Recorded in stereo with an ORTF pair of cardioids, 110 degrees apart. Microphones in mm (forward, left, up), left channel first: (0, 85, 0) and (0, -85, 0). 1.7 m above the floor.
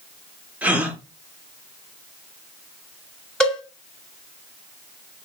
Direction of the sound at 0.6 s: 10° right.